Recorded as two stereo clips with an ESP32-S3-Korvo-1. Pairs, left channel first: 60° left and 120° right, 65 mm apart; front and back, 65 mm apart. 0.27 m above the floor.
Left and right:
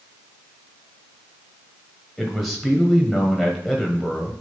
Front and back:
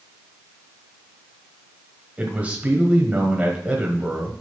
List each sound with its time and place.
2.2 s a man speaking: 150° left, 1.3 m